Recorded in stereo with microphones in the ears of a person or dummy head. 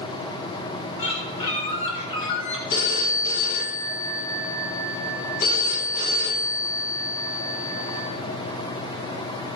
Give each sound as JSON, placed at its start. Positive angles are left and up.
{"t": 1.0, "sound": "a bird", "side_deg": 20, "distance_m": 7.5}
{"t": 2.7, "sound": "a phone ringing", "side_deg": 45, "distance_m": 3.5}